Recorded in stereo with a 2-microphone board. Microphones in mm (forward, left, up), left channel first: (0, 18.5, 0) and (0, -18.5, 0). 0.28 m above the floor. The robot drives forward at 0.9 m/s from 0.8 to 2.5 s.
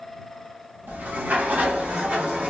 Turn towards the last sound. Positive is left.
turn(degrees=-30)  # may be behind; listen again after turning